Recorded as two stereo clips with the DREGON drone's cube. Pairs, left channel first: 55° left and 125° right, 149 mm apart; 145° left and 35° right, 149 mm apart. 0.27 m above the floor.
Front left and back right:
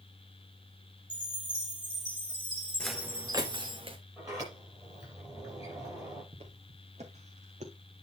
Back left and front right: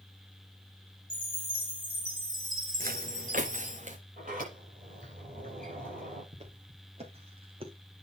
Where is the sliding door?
55° right, 6 m.